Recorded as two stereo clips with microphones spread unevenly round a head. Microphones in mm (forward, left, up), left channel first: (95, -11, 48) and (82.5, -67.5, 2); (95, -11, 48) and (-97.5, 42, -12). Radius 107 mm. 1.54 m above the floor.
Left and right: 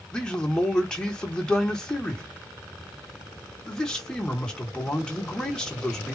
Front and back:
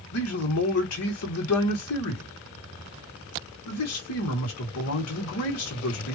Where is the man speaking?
5° right, 2.5 m.